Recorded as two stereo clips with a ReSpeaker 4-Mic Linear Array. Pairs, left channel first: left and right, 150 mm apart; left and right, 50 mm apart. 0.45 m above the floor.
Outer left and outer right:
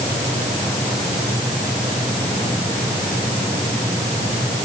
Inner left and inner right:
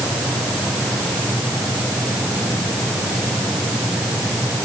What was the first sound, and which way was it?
Only background noise.